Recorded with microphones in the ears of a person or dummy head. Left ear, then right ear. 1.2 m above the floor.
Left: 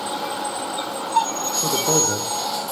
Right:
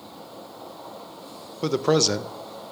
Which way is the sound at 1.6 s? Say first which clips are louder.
Right 1 dB; 75° right (ahead or behind).